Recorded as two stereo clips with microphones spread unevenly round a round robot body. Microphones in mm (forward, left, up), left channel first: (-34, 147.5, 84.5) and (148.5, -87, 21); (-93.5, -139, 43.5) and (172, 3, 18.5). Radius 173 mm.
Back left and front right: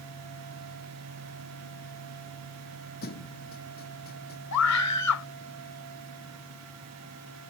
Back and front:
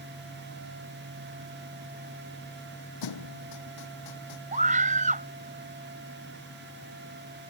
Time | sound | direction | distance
3.0 | a thud | 170° right | ?
4.5 | a scream | 95° left | ?